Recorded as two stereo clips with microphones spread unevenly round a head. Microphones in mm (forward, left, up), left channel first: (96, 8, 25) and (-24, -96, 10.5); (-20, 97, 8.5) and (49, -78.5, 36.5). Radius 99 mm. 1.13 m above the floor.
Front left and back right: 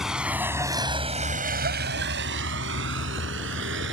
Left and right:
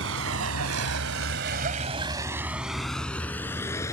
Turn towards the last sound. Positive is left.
turn(degrees=-170)